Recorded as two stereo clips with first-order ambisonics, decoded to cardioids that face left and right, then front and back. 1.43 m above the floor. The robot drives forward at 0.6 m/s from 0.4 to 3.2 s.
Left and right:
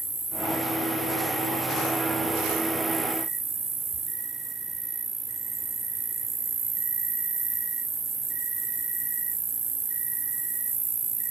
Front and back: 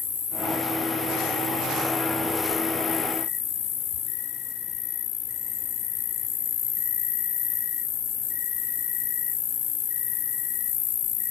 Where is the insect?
15° right, 3 m; by 11.3 s 35° right, 1.6 m.